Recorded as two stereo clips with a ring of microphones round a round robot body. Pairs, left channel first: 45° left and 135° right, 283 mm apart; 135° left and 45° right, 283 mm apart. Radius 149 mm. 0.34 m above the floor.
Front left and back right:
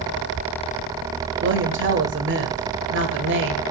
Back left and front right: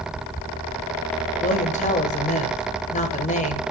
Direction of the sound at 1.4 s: 165° right.